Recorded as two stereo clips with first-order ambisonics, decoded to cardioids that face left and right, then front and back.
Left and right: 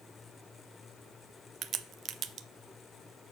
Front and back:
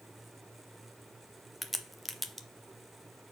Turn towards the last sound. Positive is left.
turn(degrees=-95)